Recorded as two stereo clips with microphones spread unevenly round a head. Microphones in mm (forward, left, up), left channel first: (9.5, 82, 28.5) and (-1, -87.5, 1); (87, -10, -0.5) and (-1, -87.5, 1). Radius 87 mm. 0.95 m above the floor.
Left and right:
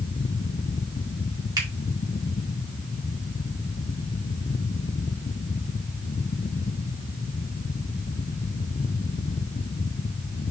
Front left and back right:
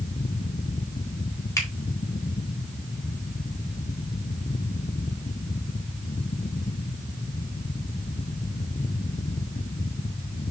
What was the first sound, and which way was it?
A finger snap, 25° right.